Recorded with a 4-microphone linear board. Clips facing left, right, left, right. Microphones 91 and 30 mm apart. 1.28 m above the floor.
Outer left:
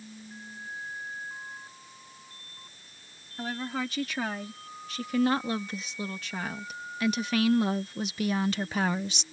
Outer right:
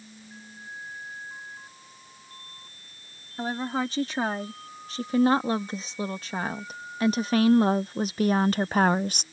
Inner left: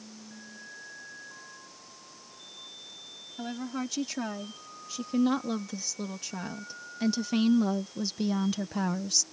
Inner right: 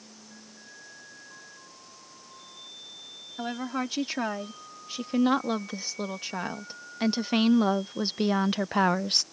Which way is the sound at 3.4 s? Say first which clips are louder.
Outer right 4 dB, inner right 3 dB; 35° right (ahead or behind).